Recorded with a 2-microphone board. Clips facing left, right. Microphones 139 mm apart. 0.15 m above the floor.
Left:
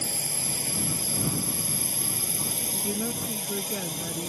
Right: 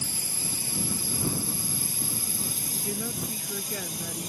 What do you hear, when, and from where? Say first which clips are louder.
0.0 s a drone: left 3 dB; 65° left (ahead or behind)
2.7 s a woman speaking: left 3 dB; 10° left (ahead or behind)